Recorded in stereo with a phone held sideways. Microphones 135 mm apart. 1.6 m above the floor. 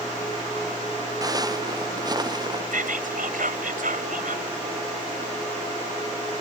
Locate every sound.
1.2 s footsteps: 30° right (ahead or behind)
2.7 s whispering: 85° right